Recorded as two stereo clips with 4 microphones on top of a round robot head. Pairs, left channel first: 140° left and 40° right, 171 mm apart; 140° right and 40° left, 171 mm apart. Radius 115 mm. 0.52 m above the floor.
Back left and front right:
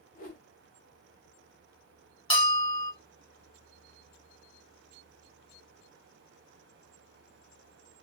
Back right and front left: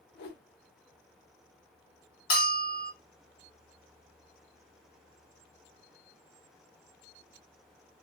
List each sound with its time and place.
0.1 s a whoosh: 175° right, 0.6 m
2.3 s a bell: 160° right, 1.3 m